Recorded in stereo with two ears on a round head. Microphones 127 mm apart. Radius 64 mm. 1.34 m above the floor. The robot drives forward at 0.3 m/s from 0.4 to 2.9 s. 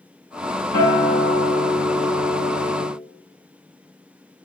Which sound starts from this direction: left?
A guitar, at 0.7 s.